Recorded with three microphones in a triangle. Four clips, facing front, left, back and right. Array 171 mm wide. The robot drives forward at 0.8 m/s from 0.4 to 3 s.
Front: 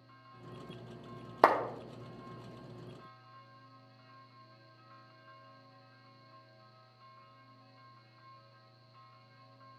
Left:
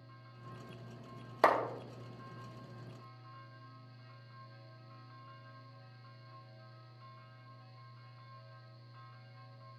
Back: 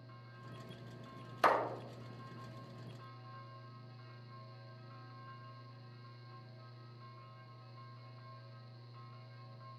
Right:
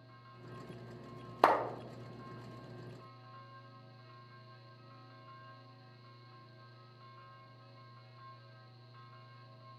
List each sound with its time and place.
1.4 s a clap: 25° right, 1.0 m